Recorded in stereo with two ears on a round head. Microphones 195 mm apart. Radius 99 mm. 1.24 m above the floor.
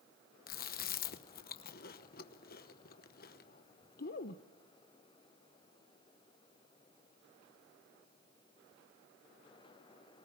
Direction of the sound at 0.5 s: 45° left (ahead or behind).